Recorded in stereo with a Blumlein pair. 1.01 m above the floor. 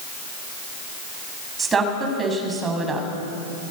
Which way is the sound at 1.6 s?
15° right.